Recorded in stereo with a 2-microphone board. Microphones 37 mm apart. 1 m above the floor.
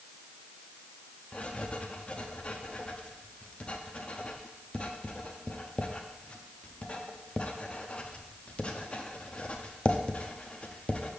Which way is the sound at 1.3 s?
35° left (ahead or behind).